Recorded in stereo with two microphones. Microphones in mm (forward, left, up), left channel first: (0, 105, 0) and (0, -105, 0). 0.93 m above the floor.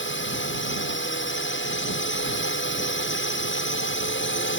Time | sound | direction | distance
0.0 | a drone | 65° left (ahead or behind) | ?